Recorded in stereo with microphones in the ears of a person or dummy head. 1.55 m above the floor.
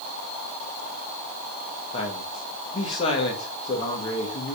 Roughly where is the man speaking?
Left.